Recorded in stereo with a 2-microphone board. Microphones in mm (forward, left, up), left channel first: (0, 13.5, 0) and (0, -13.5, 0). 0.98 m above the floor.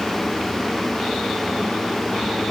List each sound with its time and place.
Only background noise.